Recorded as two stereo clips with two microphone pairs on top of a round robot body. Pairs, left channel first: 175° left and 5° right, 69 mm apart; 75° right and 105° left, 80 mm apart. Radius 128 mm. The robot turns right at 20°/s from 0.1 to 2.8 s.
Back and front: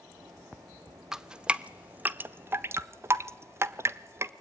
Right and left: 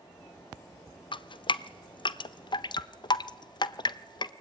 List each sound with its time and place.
1.1 s dripping: 85° right, 0.8 m; by 4.3 s 50° right, 0.8 m